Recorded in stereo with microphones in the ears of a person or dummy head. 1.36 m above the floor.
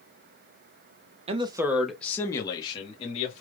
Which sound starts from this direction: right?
A man speaking, at 1.3 s.